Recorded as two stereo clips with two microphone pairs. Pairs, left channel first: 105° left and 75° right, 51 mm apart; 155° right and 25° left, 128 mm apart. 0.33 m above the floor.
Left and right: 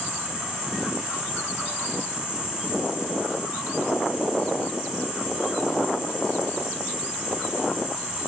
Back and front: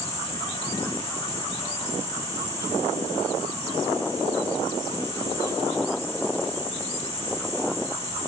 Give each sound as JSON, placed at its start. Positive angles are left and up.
{"t": 0.0, "sound": "an insect", "azimuth_deg": -140, "distance_m": 2.5}